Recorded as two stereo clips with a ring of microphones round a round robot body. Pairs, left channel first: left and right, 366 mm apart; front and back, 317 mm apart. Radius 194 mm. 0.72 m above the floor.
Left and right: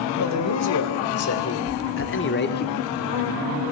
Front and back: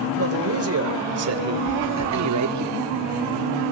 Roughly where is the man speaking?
Behind left.